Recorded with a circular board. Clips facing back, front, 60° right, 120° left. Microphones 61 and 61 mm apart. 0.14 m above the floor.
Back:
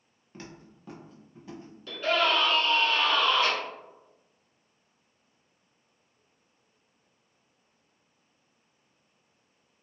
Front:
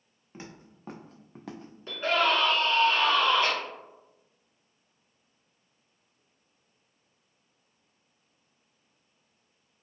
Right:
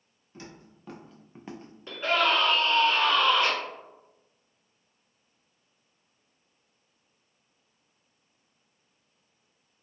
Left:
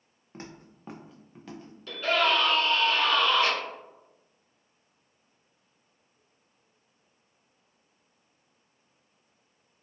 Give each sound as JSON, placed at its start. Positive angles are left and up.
{"t": 0.3, "sound": "footsteps", "azimuth_deg": 75, "distance_m": 0.9}
{"t": 1.9, "sound": "a scream", "azimuth_deg": -20, "distance_m": 1.4}